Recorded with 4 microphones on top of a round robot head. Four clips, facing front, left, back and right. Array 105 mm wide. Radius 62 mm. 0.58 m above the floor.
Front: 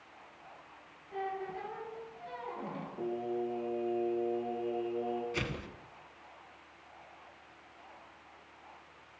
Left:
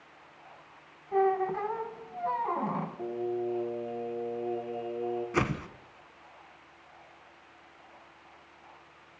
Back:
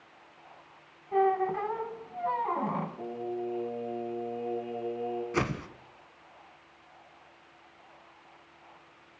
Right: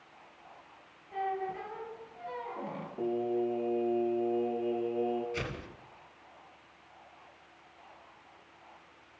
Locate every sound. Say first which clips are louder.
1.1 s a squeak: left 8 dB, back 12 dB; 140° left, 1.6 m
3.0 s singing: right 6 dB, even; 80° right, 9.5 m
5.3 s a whoosh: left 9 dB, back 7 dB; 125° left, 1.4 m